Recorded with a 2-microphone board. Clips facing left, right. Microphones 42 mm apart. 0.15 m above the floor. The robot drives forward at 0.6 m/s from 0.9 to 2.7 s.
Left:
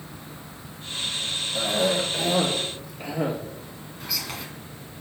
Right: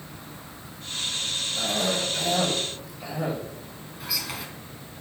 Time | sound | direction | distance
1.6 | a cough | 45° left (ahead or behind) | 4 m
4.0 | whispering | 5° right (ahead or behind) | 1.6 m